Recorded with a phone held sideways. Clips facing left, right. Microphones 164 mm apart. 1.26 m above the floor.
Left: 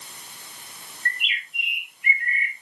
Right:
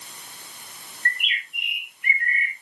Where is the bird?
65° right (ahead or behind), 4 m.